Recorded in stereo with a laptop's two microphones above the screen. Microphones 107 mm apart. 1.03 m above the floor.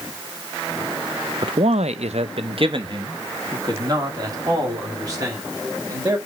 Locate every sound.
1.4 s a man speaking: 50° right (ahead or behind), 0.5 m; by 6.2 s 30° right (ahead or behind), 3.5 m